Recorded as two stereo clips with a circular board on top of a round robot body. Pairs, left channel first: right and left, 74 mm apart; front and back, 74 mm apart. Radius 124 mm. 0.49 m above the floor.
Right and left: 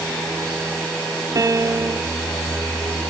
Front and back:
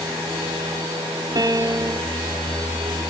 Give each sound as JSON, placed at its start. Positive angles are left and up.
{"t": 1.4, "sound": "a piano", "azimuth_deg": 140}